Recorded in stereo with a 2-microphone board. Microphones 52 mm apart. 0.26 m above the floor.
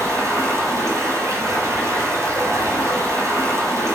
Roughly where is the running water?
Right.